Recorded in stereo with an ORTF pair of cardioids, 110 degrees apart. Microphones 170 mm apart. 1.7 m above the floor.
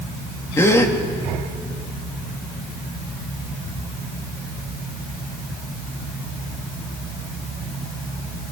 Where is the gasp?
15° left, 2 m.